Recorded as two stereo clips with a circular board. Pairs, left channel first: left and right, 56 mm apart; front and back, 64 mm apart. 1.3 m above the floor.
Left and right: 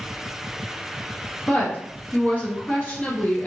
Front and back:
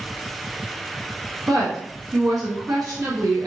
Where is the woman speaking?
150° left, 1.4 m.